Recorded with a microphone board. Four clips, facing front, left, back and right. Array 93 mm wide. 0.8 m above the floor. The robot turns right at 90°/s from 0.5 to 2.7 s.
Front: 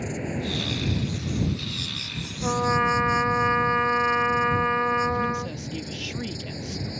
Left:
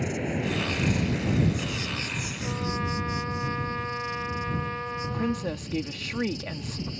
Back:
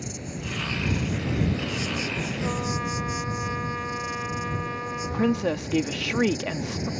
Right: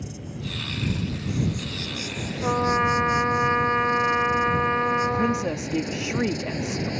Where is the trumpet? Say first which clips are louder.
Right 11 dB, front 10 dB; 75° right; by 5.6 s 50° right.